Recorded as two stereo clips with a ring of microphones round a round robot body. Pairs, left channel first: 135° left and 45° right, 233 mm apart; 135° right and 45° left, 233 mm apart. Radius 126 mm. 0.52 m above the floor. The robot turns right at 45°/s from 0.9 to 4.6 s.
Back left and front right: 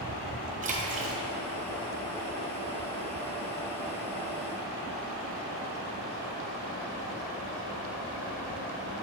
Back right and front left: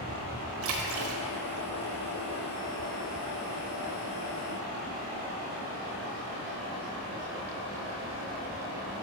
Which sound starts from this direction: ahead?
A splash, at 0.6 s.